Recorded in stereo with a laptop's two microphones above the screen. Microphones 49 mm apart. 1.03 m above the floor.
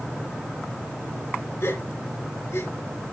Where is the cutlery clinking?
I don't hear cutlery clinking.